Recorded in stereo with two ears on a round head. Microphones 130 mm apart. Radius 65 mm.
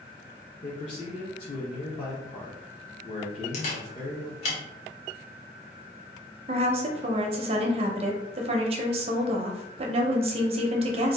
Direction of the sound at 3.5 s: 45° left (ahead or behind).